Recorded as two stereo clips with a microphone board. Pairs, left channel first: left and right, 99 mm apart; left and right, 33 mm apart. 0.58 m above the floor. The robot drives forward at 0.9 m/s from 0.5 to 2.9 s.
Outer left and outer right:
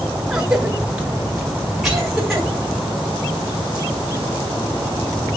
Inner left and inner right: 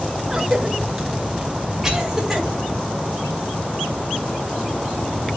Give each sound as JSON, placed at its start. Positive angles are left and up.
{"t": 0.3, "sound": "a cough", "side_deg": -10, "distance_m": 0.9}